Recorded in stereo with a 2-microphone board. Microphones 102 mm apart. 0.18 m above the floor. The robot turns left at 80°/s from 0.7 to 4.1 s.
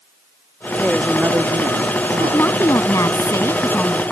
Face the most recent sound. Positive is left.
turn(degrees=10)